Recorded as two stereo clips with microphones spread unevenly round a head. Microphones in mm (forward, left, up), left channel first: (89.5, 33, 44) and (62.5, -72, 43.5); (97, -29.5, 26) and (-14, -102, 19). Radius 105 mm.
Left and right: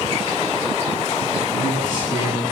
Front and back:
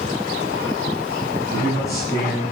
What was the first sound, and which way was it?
A man speaking, 105° left.